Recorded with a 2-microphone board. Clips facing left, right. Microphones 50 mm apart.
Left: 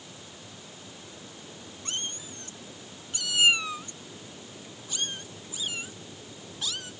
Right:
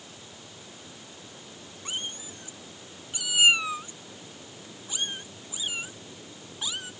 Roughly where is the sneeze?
No sneeze in this recording.